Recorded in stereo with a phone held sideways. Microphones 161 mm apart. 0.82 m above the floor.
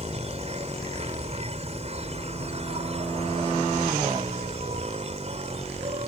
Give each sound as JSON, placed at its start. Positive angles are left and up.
{"t": 0.0, "sound": "an insect", "side_deg": -40}